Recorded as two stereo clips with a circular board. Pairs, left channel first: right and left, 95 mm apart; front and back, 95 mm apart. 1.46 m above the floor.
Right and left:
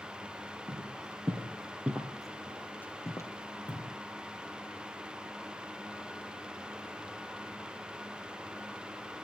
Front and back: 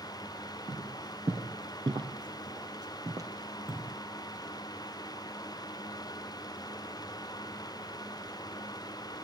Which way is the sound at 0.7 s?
140° left.